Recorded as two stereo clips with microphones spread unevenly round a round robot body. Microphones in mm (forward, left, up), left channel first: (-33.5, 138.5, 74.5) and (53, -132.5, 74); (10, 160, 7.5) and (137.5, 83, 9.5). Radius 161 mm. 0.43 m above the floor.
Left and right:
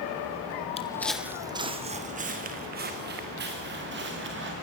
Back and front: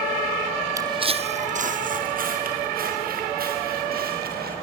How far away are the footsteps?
About 1.0 m.